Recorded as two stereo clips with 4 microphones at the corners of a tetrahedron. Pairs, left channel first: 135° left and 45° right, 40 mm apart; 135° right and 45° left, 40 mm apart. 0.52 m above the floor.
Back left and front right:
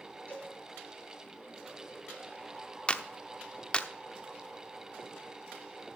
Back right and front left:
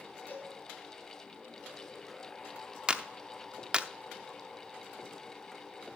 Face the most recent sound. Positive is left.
turn(degrees=95)